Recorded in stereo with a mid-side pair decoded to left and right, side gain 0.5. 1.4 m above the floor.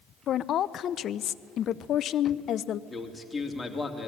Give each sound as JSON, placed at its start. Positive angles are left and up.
{"t": 0.3, "sound": "a woman speaking", "azimuth_deg": 60, "distance_m": 0.6}
{"t": 2.9, "sound": "a man speaking", "azimuth_deg": 20, "distance_m": 3.0}